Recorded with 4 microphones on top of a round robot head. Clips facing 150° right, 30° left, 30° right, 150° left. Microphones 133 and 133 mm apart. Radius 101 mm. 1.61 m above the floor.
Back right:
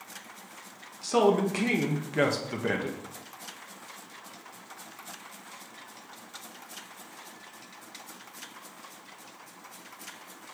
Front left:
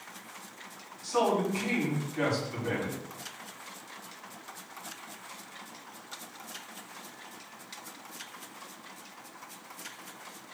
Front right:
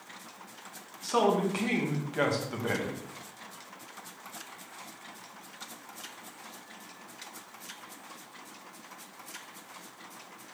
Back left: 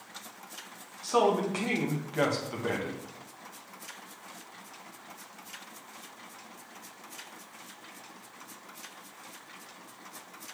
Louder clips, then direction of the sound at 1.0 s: Back right 4 dB, back left 1 dB; 120° right.